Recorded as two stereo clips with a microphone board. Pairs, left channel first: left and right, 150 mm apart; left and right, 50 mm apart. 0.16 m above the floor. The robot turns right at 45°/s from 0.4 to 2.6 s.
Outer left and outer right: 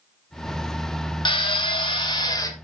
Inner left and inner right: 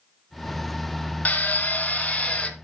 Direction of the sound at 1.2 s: 80° left.